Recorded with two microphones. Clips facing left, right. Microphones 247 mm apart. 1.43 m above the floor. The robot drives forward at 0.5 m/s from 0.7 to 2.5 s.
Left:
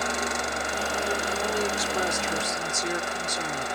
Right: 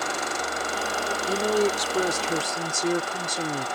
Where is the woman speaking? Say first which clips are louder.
Right 6 dB; 40° right (ahead or behind); by 3.7 s 35° right (ahead or behind).